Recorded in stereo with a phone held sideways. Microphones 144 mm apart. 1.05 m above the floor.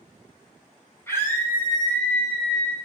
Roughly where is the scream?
Centre.